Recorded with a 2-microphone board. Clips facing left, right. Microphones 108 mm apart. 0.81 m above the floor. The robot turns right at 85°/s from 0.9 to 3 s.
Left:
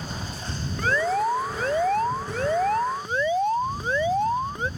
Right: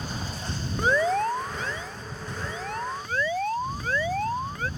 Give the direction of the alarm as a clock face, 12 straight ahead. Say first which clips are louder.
Even; 1 o'clock.